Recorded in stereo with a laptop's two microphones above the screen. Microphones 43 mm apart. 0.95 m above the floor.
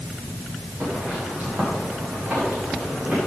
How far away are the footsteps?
About 5 m.